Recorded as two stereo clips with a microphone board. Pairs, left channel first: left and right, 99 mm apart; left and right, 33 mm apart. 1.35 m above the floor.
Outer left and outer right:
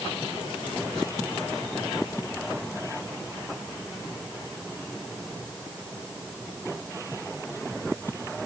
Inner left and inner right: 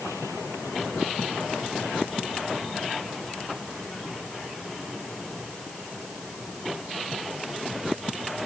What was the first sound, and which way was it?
Only background noise.